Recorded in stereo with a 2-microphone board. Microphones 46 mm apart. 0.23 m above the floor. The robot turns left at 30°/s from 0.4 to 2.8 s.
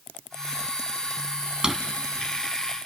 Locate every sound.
1.6 s a drawer: 15° right (ahead or behind), 1.1 m